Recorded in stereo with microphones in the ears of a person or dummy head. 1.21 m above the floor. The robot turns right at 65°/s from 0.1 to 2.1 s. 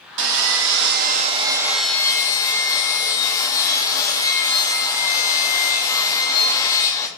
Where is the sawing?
105° right, 0.9 m; by 7.1 s 20° left, 0.9 m.